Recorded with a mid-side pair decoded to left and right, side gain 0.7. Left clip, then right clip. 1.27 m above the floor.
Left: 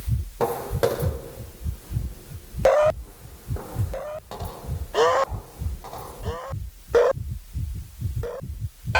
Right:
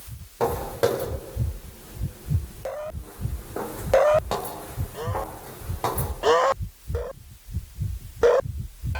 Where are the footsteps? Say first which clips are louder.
Even; 10° left, 5.5 m; by 6.1 s 65° right, 5 m.